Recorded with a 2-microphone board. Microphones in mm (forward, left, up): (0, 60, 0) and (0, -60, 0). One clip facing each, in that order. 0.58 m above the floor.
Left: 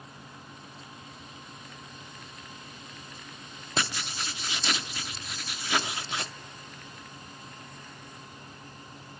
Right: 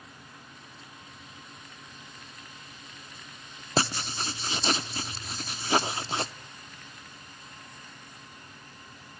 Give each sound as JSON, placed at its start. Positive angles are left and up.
{"t": 3.8, "sound": "writing", "side_deg": -35, "distance_m": 0.9}